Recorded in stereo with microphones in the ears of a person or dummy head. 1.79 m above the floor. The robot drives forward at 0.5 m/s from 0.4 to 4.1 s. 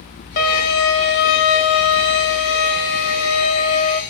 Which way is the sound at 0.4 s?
50° left (ahead or behind).